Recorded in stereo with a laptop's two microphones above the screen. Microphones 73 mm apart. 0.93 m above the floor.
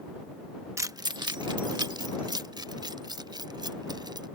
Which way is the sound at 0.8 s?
40° right (ahead or behind).